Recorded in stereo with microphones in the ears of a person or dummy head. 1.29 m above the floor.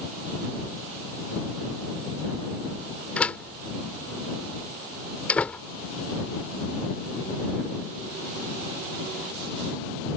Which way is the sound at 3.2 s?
10° left (ahead or behind).